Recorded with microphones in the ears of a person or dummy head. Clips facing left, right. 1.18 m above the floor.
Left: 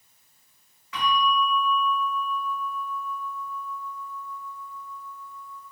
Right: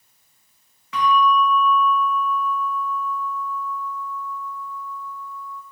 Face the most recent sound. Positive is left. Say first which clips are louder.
# right 6 dB
turn(degrees=-60)  # may be behind; listen again after turning